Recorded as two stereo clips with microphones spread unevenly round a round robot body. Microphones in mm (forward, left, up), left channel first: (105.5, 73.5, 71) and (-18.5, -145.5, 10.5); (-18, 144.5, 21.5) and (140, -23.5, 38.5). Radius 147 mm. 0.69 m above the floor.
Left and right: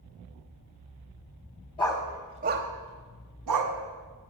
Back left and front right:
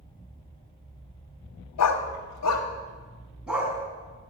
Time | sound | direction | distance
1.8 | a dog barking | 130° left | 1.3 m